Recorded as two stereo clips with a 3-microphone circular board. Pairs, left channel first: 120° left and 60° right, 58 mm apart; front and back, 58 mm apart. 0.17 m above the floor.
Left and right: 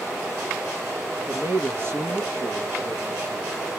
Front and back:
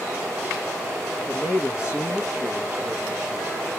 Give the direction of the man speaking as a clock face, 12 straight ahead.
1 o'clock.